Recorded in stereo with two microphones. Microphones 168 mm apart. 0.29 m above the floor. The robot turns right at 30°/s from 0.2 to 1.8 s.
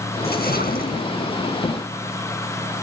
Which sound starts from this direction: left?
A splash, at 0.2 s.